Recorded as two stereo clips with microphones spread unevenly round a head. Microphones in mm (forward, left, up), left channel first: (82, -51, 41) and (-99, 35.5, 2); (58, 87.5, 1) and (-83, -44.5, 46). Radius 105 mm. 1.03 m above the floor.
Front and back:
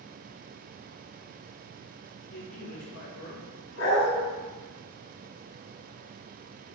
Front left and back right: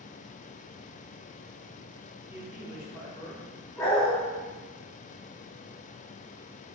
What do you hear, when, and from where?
2.3 s a man speaking: 50° right, 2.5 m; by 3.5 s 35° right, 3 m
3.8 s a dog barking: 35° right, 3.5 m